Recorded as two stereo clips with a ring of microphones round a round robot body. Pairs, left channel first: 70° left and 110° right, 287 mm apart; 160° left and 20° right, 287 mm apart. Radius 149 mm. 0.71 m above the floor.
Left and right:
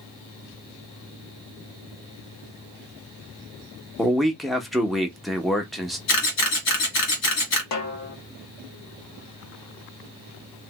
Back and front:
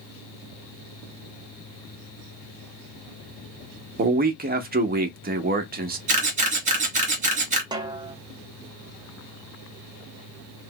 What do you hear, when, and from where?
4.0 s a man speaking: 20° right, 0.7 m
6.1 s a camera shutter: 40° left, 1.5 m
7.7 s a snare drum: 55° left, 0.8 m